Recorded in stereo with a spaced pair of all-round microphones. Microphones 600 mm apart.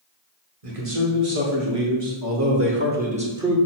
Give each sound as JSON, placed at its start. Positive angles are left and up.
{"t": 0.6, "sound": "a man speaking", "side_deg": -60, "distance_m": 1.5}